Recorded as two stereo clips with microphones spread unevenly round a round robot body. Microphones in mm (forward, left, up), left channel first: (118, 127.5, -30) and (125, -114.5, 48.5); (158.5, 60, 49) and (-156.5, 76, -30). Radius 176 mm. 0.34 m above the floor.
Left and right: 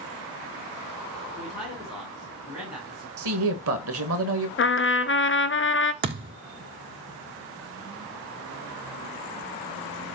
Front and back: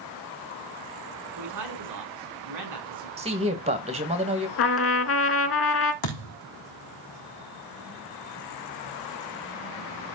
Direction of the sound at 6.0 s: 35° right.